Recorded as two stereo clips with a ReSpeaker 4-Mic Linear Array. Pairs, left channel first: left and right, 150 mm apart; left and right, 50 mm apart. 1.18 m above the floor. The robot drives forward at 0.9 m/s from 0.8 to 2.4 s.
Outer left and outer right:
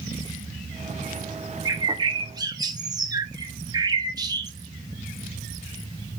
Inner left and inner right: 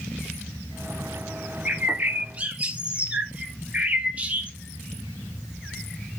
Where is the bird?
25° right (ahead or behind), 0.6 m.